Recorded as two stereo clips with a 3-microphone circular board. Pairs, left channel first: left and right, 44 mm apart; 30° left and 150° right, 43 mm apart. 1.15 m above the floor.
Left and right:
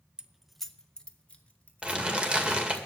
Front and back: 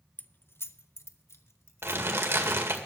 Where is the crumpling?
160° right, 1.9 m.